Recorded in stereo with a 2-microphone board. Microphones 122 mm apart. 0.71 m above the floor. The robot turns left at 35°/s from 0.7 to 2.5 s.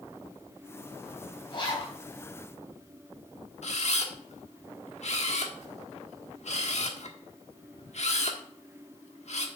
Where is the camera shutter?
65° left (ahead or behind), 1.3 m.